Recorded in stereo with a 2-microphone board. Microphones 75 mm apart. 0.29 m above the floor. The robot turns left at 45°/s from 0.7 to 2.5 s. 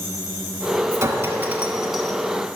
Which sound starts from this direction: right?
A clink, at 0.9 s.